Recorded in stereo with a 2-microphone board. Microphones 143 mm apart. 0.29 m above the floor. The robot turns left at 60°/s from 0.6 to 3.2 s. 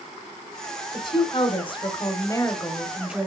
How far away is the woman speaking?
About 1.4 m.